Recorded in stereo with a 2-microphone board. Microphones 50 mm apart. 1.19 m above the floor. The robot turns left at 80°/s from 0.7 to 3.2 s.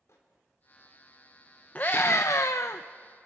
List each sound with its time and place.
0.1 s a microwave: 75° left (ahead or behind), 3.5 m
1.8 s a scream: 145° left, 0.6 m; by 2.8 s 60° left, 0.6 m